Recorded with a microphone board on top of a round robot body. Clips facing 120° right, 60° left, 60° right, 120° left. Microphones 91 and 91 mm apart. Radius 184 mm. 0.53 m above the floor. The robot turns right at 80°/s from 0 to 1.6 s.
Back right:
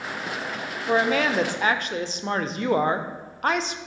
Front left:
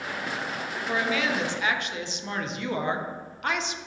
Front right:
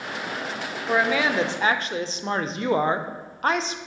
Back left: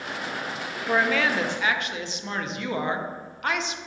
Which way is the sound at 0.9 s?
155° right.